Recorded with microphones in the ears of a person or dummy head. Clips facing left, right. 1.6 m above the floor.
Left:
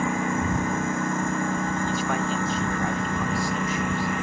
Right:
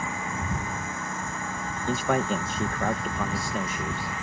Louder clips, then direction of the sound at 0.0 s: Left 8 dB; 50° left (ahead or behind).